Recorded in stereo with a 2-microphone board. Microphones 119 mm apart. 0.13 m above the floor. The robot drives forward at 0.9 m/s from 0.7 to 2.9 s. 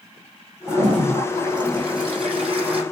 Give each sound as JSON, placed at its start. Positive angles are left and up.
{"t": 0.7, "sound": "a toilet flushing", "side_deg": -40, "distance_m": 6.0}